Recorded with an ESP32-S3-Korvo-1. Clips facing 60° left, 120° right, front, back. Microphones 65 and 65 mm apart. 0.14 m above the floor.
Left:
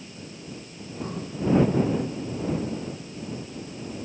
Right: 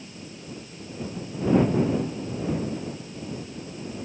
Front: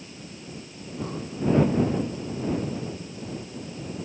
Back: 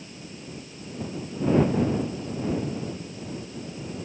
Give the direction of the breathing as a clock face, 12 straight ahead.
11 o'clock.